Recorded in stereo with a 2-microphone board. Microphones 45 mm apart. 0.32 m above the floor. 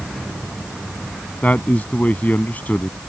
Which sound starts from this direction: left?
A man speaking, at 1.4 s.